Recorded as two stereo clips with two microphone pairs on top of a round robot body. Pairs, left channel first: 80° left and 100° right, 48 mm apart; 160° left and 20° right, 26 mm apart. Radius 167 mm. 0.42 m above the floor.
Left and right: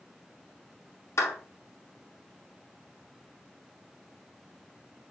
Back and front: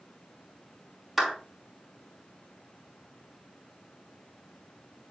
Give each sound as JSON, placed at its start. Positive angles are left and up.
{"t": 1.2, "sound": "a clap", "azimuth_deg": 60, "distance_m": 4.0}